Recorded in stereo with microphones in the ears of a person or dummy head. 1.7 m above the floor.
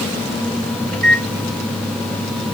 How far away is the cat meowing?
I don't hear a cat meowing.